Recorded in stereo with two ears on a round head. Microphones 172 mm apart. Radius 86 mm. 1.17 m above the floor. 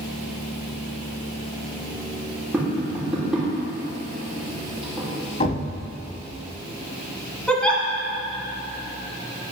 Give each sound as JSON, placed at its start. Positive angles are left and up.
{"t": 2.5, "sound": "tapping", "side_deg": -5, "distance_m": 3.0}
{"t": 5.4, "sound": "a thud", "side_deg": 35, "distance_m": 1.2}
{"t": 7.5, "sound": "a giggle", "side_deg": 5, "distance_m": 1.5}